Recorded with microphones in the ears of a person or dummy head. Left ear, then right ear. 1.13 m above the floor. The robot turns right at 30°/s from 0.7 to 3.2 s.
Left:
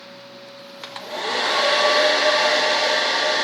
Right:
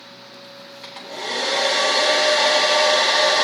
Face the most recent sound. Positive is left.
turn(degrees=-160)